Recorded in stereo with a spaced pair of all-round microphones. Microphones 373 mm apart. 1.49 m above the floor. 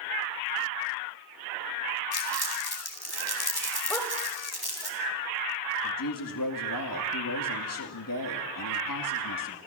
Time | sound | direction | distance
2.1 | crumpling | 80° left | 3 m
3.9 | a dog barking | 5° left (ahead or behind) | 2.5 m
5.8 | a woman speaking | 60° left (ahead or behind) | 2 m